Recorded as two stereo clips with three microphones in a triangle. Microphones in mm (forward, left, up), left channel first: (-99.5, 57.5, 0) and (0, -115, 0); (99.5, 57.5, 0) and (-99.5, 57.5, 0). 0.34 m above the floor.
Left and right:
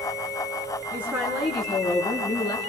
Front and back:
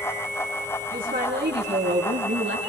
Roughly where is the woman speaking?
Behind right.